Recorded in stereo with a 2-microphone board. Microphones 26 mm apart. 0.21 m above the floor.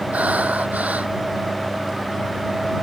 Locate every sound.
0.1 s breathing: 70° right (ahead or behind)